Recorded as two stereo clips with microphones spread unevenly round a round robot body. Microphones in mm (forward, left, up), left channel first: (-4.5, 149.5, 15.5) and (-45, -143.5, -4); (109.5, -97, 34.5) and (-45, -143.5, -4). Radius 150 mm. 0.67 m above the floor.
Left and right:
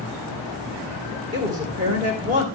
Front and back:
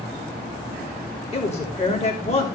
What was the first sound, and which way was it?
A woman speaking, 35° right.